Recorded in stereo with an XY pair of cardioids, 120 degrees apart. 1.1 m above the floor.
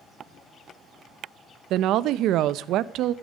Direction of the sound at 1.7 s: 70° right.